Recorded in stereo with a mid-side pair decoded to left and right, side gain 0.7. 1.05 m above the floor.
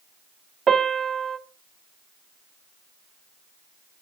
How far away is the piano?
About 0.6 m.